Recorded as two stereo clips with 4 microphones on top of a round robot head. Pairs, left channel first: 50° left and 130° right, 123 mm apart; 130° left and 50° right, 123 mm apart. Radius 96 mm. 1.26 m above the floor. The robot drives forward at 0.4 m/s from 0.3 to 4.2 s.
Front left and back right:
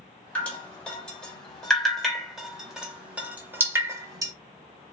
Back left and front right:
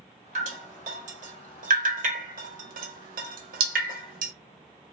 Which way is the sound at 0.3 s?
25° right.